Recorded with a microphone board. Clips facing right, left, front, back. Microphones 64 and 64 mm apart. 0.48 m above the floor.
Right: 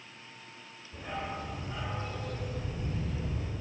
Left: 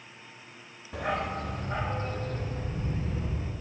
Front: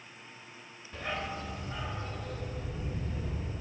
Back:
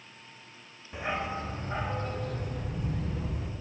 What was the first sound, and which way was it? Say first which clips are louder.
A dog barking: left 7 dB, back 4 dB; 105° left.